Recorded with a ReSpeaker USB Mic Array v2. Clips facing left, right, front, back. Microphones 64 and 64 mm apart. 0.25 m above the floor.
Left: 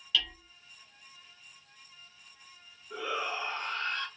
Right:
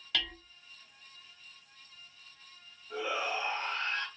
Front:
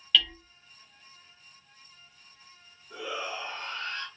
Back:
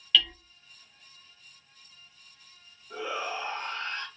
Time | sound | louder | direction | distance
0.1 | hammering | left 3 dB, even | 90° right | 0.9 m
2.9 | a shout | even, back 2 dB | 150° right | 1.8 m